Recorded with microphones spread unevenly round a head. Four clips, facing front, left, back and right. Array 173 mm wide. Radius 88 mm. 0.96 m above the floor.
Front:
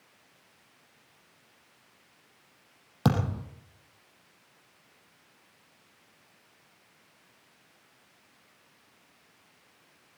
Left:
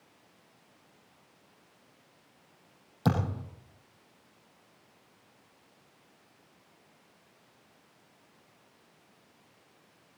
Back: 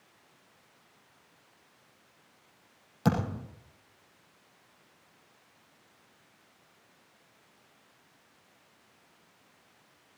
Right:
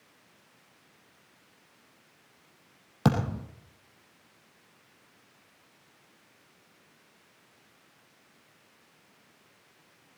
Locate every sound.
3.0 s a thud: 50° right, 4 m